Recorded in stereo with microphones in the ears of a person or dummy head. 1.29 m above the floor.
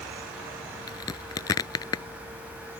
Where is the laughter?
No laughter in this recording.